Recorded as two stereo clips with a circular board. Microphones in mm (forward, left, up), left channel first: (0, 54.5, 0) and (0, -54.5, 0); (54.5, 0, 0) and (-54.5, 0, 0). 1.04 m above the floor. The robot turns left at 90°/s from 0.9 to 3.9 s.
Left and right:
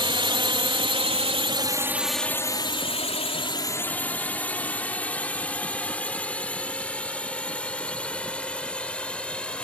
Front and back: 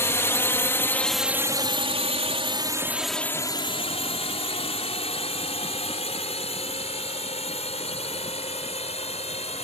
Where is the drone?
60° right; by 9.7 s 10° left.